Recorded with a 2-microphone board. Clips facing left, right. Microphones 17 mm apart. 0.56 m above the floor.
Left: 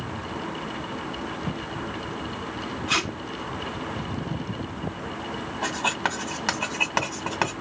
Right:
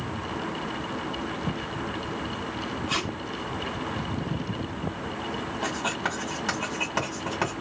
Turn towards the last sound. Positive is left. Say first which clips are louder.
# left 4 dB
turn(degrees=40)  # may be behind; listen again after turning